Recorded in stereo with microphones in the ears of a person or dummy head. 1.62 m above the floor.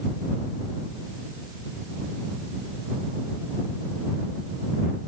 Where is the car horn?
No car horn in this recording.